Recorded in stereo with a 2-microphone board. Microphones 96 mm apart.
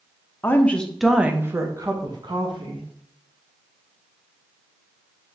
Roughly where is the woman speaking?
Left.